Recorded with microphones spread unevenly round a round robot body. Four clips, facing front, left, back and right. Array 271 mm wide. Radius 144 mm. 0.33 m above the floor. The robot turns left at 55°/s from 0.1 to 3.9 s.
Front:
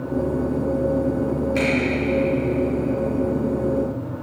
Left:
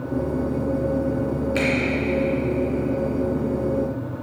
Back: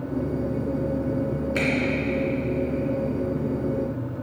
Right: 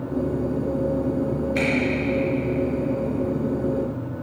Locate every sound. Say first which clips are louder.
1.6 s a finger snap: left 1 dB, front 4 dB; 140° left, 3.5 m; by 1.7 s 135° left, 3.5 m